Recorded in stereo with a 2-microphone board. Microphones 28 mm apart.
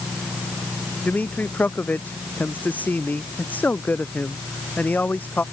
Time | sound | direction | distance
1.0 | a man speaking | 80° left | ?